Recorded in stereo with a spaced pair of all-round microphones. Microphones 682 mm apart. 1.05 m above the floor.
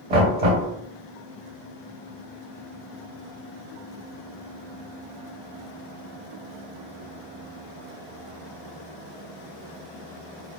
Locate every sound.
0.1 s knocking: 70° right (ahead or behind), 1.4 m